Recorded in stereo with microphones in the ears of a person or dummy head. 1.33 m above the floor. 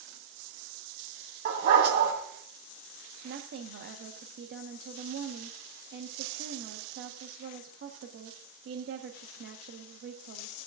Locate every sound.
1.4 s a dog barking: 55° right (ahead or behind), 2.5 m
3.2 s a woman speaking: 65° right (ahead or behind), 1.1 m